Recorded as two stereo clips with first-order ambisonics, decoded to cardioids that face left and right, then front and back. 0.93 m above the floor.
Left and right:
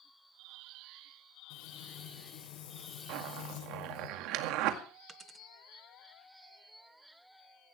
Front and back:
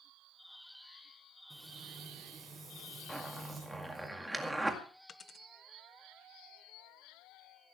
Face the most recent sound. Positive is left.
turn(degrees=-40)